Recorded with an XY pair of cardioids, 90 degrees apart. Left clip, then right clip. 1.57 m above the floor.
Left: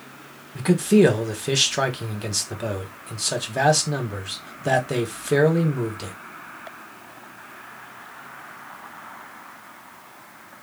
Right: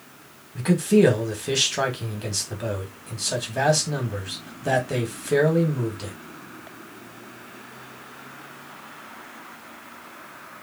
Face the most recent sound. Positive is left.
turn(degrees=25)